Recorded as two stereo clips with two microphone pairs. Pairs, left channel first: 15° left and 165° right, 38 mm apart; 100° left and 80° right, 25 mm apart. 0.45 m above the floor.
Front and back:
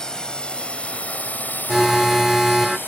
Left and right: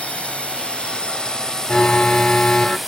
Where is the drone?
85° left; by 2.9 s 5° left.